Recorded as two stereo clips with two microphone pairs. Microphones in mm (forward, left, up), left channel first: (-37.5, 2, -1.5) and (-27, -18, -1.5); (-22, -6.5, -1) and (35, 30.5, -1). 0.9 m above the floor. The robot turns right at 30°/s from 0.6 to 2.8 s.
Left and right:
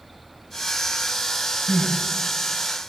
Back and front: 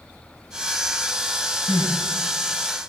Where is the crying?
160° right, 6.5 m; by 1.9 s 150° right, 6.5 m.